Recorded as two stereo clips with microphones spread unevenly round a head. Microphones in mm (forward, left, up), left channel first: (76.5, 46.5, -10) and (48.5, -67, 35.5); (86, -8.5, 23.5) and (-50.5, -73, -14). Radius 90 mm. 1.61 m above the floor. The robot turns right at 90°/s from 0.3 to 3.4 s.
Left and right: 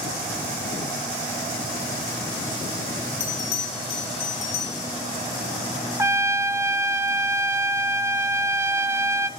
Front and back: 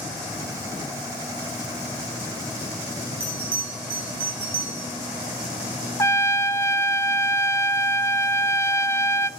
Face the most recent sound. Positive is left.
turn(degrees=-45)